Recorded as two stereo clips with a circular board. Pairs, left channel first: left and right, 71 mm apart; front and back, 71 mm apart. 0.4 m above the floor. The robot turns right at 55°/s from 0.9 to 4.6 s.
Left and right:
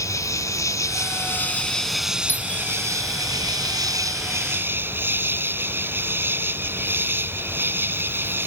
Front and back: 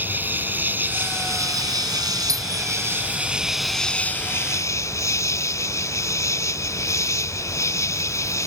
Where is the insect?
120° left; by 8.5 s 35° right.